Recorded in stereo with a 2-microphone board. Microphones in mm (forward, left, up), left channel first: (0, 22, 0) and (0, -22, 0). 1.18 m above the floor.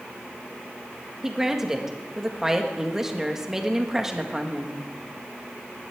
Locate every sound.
1.2 s a woman speaking: 10° right (ahead or behind), 1.5 m